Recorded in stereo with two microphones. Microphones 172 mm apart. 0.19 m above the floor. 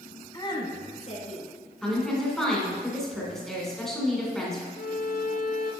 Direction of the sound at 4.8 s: 65° left (ahead or behind).